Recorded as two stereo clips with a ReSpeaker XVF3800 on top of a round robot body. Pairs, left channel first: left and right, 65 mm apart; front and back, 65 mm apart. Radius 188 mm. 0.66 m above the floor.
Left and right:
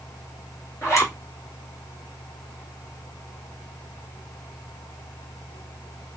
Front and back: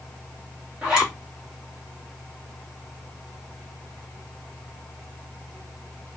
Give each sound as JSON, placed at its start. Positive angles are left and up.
{"t": 0.8, "sound": "a zipper", "azimuth_deg": 110, "distance_m": 1.4}